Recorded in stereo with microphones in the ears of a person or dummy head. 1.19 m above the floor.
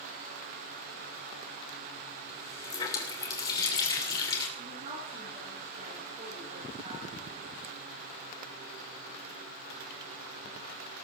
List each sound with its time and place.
2.3 s a running tap: 35° left (ahead or behind), 3 m
4.6 s a woman speaking: 25° right (ahead or behind), 7 m